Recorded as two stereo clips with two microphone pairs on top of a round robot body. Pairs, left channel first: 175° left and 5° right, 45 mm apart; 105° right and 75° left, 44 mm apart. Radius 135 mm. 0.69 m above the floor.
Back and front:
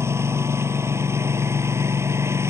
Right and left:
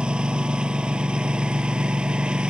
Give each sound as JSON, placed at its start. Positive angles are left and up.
{"t": 0.0, "sound": "a lawn mower", "azimuth_deg": 10}